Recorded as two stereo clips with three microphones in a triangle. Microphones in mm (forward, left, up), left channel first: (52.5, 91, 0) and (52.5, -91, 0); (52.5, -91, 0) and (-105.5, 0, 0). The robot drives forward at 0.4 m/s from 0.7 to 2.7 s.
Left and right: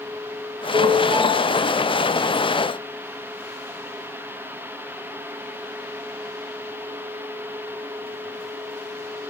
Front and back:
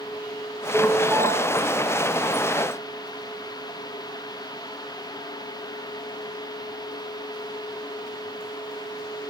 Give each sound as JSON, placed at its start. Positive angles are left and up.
{"t": 0.7, "sound": "a ringtone", "azimuth_deg": -135, "distance_m": 3.0}